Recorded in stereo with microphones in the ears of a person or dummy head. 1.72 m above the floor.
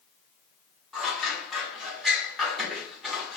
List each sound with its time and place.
0.9 s scissors: 5° left (ahead or behind), 1.0 m